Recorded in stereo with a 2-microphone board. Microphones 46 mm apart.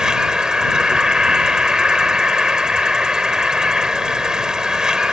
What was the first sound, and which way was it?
An insect, 15° right (ahead or behind).